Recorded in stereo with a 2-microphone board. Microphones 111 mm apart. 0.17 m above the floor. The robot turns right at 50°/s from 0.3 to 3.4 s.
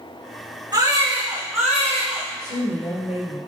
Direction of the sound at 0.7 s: 40° right.